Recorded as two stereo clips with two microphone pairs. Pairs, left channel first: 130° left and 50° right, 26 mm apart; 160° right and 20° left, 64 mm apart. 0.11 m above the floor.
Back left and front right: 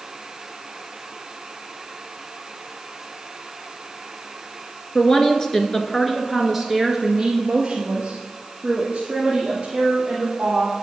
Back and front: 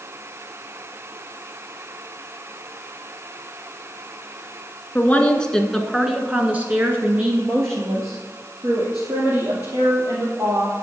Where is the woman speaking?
155° left, 1.3 m; by 10.8 s straight ahead, 3.5 m.